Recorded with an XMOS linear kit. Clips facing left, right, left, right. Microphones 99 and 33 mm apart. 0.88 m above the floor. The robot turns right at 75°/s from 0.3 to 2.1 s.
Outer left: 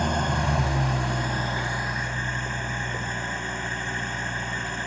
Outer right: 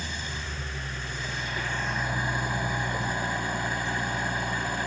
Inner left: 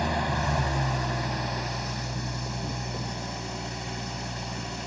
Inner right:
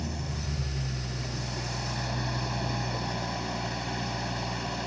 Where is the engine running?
55° left; by 4.9 s 170° right.